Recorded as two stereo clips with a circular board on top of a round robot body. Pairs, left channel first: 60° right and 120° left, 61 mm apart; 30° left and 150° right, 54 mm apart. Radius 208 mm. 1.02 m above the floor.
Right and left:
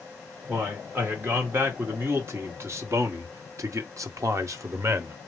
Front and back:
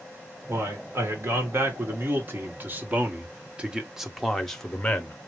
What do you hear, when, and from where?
0.5 s a man speaking: 170° left, 2.5 m; by 5.2 s 85° left, 1.1 m